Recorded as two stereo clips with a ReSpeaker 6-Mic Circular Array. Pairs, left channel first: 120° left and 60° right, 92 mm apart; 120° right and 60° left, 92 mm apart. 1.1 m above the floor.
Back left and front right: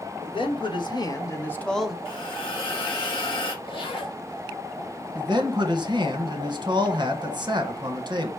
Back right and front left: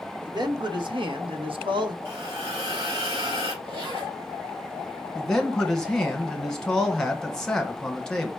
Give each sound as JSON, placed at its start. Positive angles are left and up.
{"t": 0.2, "sound": "a man speaking", "azimuth_deg": 100, "distance_m": 1.3}
{"t": 2.0, "sound": "a hiss", "azimuth_deg": 90, "distance_m": 3.0}
{"t": 3.6, "sound": "a zipper", "azimuth_deg": 95, "distance_m": 2.0}
{"t": 5.2, "sound": "a man speaking", "azimuth_deg": -35, "distance_m": 1.0}